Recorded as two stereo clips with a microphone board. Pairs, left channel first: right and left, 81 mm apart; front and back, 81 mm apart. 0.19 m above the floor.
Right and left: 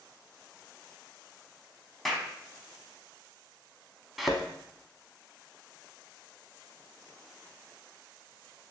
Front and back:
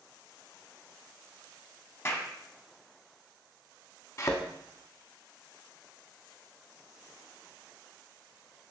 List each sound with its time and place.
2.0 s a clap: straight ahead, 0.9 m
4.2 s a thud: straight ahead, 0.6 m